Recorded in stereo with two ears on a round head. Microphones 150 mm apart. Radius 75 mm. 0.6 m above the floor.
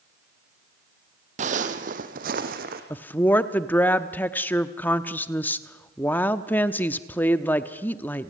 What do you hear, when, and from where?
1.4 s footsteps: 45° right (ahead or behind), 1.4 m; by 2.8 s 60° right (ahead or behind), 2.5 m
2.9 s a woman speaking: 10° left (ahead or behind), 0.8 m